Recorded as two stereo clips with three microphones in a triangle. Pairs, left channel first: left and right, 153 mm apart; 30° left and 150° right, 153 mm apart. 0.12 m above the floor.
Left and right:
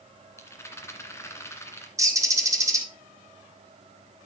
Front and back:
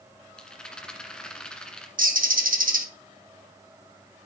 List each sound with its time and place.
0.4 s a rattle: 100° left, 1.6 m
2.0 s a bird: 160° right, 1.7 m